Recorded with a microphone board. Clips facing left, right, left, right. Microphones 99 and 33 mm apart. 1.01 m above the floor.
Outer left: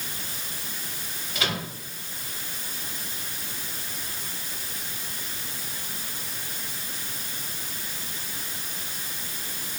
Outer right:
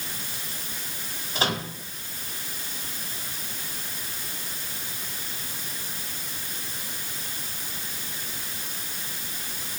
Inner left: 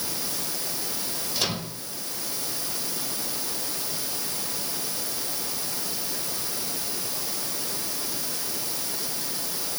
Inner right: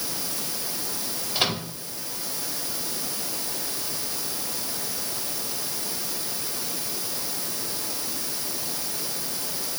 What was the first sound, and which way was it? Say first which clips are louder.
A microwave: outer right 3 dB, inner right 4 dB; 35° right (ahead or behind).